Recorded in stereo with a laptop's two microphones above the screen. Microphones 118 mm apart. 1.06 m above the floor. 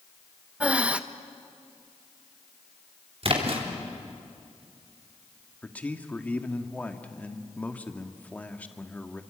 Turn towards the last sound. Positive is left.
turn(degrees=15)  # may be behind; listen again after turning